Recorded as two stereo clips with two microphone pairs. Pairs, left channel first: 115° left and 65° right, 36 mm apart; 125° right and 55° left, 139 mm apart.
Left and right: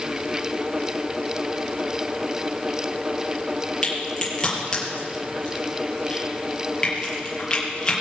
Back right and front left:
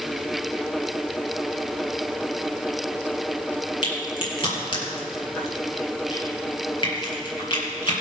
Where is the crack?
175° right, 4.5 m.